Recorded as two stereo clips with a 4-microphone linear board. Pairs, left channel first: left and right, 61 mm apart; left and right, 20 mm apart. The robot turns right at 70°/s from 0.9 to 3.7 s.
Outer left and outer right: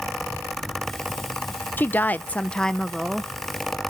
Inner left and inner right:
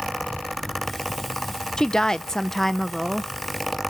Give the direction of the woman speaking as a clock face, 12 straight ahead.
9 o'clock.